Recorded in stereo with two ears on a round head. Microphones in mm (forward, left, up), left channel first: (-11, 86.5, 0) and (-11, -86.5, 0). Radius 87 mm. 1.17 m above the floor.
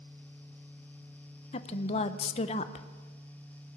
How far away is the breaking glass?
No breaking glass in this recording.